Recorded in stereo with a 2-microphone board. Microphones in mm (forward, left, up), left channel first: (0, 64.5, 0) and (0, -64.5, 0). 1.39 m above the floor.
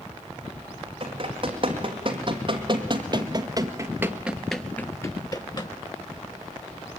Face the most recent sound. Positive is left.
turn(degrees=35)  # may be behind; listen again after turning